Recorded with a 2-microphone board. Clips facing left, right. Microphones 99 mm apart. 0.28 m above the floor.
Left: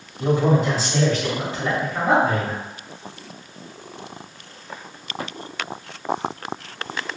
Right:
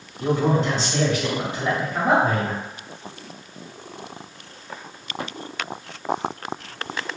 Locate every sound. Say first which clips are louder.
0.2 s a man speaking: left 2 dB; 20° left (ahead or behind), 1.2 m; by 2.6 s 40° right (ahead or behind), 1.4 m